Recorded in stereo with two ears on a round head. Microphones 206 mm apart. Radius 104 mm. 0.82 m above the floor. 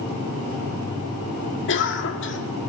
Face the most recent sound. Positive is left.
turn(degrees=50)  # may be behind; listen again after turning